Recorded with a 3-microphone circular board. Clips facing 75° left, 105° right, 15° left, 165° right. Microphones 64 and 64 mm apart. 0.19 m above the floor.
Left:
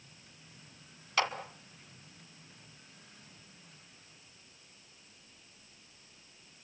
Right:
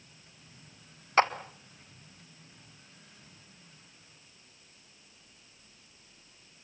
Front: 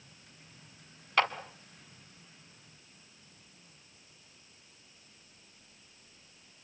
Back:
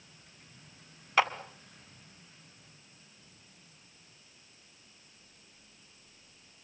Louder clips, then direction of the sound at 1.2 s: Right 7 dB, back 1 dB; 85° right.